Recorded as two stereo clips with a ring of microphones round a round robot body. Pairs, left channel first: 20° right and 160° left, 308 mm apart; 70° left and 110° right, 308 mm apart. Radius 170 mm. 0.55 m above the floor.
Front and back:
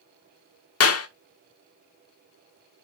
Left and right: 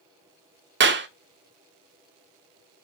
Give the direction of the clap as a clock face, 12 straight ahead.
2 o'clock.